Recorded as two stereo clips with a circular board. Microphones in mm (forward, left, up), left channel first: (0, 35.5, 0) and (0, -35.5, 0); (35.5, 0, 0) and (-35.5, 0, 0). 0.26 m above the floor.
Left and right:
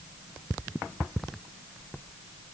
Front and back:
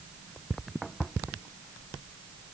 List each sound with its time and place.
Only background noise.